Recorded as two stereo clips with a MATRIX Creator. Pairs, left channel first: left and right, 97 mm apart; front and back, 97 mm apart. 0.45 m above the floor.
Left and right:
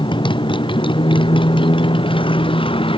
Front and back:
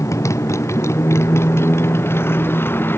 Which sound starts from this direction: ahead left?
A motorcycle, at 0.0 s.